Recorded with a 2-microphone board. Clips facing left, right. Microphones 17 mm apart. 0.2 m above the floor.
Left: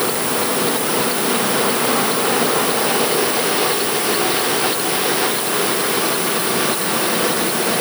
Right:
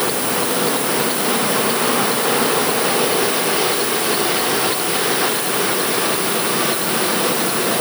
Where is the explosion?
I don't hear an explosion.